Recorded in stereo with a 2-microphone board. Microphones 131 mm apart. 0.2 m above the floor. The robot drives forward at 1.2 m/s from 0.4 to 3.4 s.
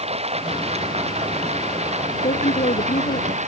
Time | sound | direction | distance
0.0 | running water | 50° right (ahead or behind) | ?
2.2 | a woman speaking | 65° left (ahead or behind) | ?